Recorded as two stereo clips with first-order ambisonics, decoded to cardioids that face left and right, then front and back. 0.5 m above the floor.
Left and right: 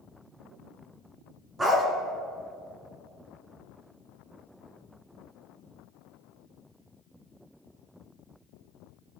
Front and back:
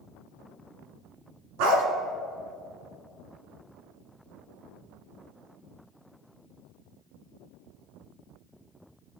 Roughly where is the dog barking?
Behind.